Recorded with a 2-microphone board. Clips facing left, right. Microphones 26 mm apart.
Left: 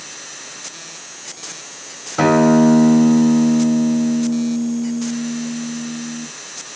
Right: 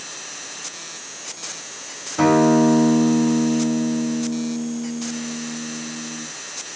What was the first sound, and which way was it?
A guitar, 30° left (ahead or behind).